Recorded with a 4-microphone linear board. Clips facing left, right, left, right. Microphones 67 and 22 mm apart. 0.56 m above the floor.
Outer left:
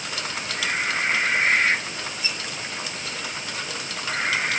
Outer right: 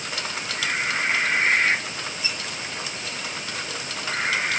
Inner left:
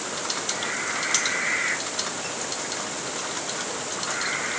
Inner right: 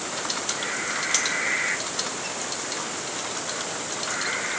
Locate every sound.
Only background noise.